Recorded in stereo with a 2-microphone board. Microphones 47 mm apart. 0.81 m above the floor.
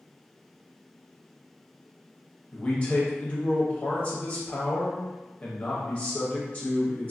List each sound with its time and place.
2.5 s a man speaking: 25° left (ahead or behind), 0.8 m